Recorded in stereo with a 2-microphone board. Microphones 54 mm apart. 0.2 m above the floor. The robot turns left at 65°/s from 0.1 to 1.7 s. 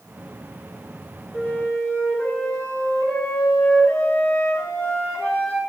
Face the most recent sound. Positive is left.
turn(degrees=35)  # may be behind; listen again after turning